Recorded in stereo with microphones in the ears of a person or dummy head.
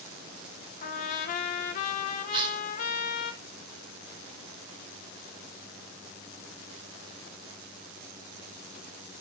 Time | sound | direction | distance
0.8 | a trumpet | 50° left (ahead or behind) | 1.2 m
2.3 | tearing paper | 25° right (ahead or behind) | 4 m